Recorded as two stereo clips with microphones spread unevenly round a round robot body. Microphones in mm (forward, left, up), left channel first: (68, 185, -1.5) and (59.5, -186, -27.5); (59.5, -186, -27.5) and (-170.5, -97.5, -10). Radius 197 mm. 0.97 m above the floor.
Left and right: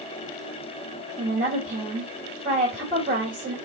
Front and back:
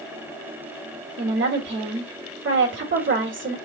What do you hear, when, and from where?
1.2 s a woman speaking: 160° right, 1.7 m